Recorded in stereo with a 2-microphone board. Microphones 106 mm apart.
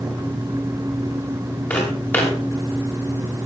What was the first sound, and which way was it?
Footsteps, 15° left (ahead or behind).